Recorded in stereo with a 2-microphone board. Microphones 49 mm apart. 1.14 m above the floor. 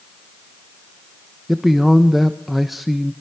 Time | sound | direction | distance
1.5 | a man speaking | 5° right (ahead or behind) | 1.1 m